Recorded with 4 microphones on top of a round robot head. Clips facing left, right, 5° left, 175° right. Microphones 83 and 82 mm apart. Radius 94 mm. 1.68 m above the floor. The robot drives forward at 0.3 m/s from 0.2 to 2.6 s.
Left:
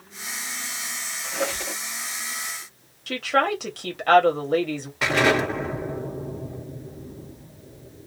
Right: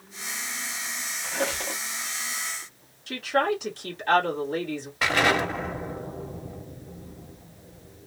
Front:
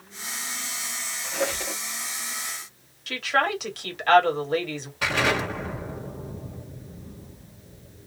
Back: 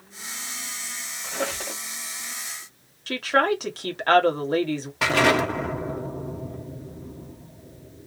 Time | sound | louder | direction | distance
1.2 | a squeak | left 1 dB, front 1 dB | 145° right | 1.1 m
3.1 | a woman speaking | left 2 dB, back 3 dB | 130° left | 1.5 m
5.0 | an explosion | left 2 dB, back 4 dB | straight behind | 1.4 m